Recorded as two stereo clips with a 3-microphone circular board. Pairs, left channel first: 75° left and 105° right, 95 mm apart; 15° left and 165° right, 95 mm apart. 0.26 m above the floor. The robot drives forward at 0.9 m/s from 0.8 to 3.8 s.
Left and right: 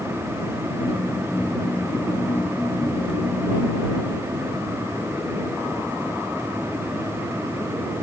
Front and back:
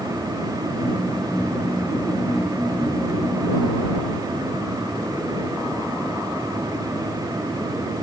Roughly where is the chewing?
No chewing in this recording.